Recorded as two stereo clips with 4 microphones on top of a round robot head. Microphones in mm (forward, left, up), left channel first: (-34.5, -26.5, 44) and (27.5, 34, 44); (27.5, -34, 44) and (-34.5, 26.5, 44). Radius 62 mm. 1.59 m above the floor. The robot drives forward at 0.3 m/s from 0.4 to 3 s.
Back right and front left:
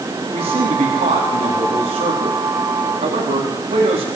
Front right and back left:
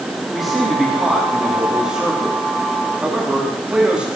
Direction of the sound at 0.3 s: 45° left.